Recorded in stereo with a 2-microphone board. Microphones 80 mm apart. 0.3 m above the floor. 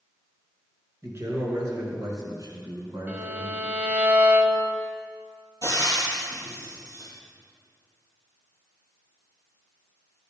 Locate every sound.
1.0 s a man speaking: 35° right (ahead or behind), 4 m; by 3.7 s 60° right (ahead or behind), 3.5 m
3.1 s a violin: 20° right (ahead or behind), 0.8 m
5.6 s frying: 60° right (ahead or behind), 3 m